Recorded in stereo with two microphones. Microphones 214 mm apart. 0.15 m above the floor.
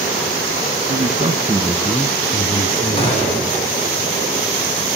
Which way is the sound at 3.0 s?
25° left (ahead or behind).